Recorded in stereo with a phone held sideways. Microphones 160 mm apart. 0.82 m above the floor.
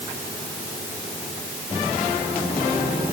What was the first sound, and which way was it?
Only background noise.